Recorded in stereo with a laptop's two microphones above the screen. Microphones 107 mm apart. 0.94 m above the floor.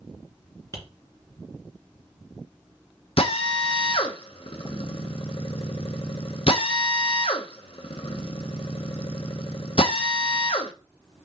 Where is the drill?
60° left (ahead or behind), 0.8 m.